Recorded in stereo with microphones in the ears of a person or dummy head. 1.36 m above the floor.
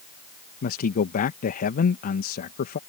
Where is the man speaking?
45° left (ahead or behind).